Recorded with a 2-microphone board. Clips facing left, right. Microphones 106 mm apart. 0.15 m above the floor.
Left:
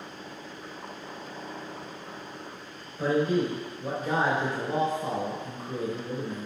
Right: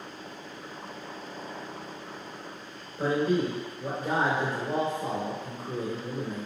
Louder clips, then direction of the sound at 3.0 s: Left 1 dB; 55° right (ahead or behind).